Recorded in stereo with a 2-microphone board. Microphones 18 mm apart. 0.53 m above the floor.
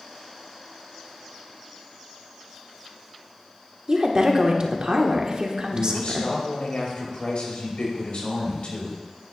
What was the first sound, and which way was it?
A woman speaking, 45° right (ahead or behind).